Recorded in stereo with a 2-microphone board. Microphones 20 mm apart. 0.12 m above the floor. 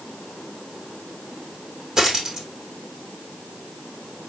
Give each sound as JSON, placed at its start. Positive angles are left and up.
{"t": 2.0, "sound": "a dropped coin", "side_deg": -35, "distance_m": 2.5}